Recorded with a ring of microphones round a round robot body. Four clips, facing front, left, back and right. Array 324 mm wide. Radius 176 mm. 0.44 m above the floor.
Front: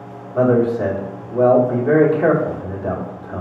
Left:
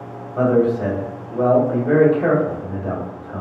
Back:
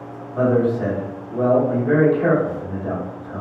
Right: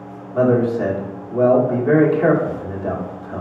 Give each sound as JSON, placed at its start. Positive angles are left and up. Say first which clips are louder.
{"t": 0.3, "sound": "a man speaking", "louder": "even, front 3 dB", "azimuth_deg": -60, "distance_m": 1.3}